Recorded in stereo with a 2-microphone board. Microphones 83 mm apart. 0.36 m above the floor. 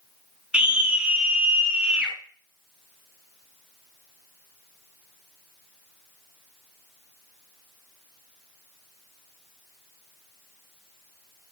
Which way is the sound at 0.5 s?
15° right (ahead or behind).